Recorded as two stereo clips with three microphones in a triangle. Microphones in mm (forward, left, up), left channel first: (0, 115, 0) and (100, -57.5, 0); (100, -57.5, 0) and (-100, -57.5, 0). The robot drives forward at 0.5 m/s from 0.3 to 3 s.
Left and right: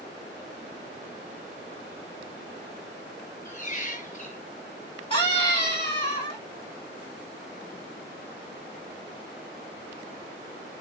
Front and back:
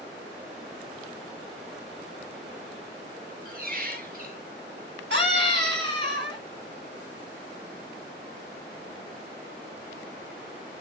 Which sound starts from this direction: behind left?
A squeak, at 3.5 s.